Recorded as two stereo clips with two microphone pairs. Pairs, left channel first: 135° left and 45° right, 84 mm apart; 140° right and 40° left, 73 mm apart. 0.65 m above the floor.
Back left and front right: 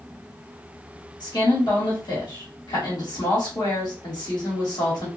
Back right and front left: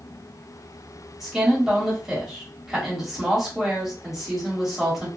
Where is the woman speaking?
125° left, 1.4 m.